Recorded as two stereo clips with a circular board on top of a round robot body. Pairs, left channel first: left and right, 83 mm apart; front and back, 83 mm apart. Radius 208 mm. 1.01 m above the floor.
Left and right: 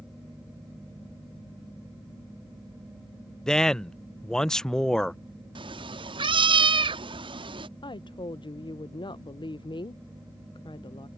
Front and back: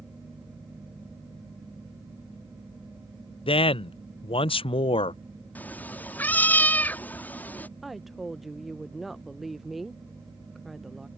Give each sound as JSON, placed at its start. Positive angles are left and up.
{"t": 3.5, "sound": "a man speaking", "azimuth_deg": 5}
{"t": 5.5, "sound": "a cat meowing", "azimuth_deg": -70}
{"t": 7.8, "sound": "a woman speaking", "azimuth_deg": 90}